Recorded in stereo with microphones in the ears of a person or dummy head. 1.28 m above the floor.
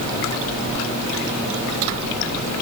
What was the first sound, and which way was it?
Only background noise.